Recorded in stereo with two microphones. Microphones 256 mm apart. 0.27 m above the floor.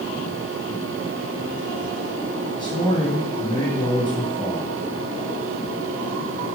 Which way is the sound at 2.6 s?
20° left (ahead or behind).